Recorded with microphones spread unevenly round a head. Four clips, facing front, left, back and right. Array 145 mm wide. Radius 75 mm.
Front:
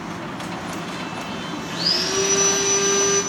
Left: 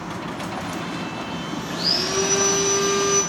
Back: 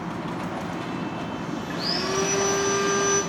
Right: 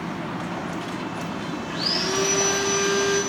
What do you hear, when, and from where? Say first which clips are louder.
1.7 s sawing: left 1 dB, front 1 dB; 175° left, 1.8 m